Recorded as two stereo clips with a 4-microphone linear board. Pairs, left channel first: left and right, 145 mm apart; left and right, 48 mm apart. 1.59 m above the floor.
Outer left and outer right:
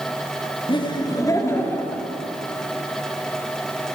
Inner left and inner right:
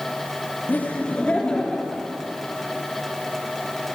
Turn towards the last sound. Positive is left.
turn(degrees=10)  # may be behind; listen again after turning